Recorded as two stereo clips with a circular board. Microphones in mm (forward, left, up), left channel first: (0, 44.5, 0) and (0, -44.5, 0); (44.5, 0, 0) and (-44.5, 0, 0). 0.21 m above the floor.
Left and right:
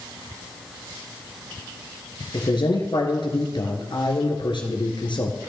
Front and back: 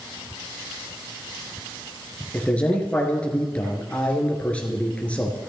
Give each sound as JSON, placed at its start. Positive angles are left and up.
{"t": 2.3, "sound": "a man speaking", "azimuth_deg": 75, "distance_m": 2.5}